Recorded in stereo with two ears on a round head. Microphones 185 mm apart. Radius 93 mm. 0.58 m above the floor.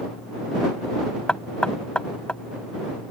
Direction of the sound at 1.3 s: 5° left (ahead or behind).